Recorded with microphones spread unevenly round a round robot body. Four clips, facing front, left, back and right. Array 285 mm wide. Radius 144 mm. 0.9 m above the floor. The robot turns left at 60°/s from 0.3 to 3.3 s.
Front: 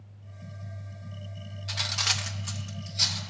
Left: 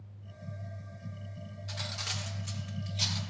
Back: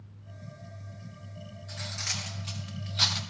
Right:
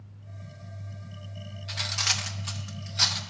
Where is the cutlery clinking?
35° right, 0.6 m; by 3.2 s 130° right, 0.6 m.